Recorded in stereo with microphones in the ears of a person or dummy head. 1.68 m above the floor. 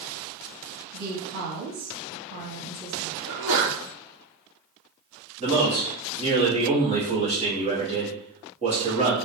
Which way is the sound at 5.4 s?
30° right (ahead or behind).